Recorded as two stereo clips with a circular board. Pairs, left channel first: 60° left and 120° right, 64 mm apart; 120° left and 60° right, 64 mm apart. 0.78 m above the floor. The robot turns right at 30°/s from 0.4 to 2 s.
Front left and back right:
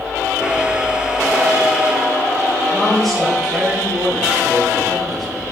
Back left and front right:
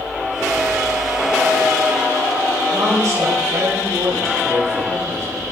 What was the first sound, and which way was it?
A woman speaking, 25° right.